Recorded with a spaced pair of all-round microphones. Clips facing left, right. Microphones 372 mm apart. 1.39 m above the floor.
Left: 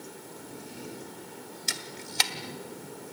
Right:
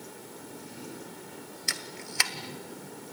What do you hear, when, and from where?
1.7 s a camera shutter: 45° left (ahead or behind), 1.6 m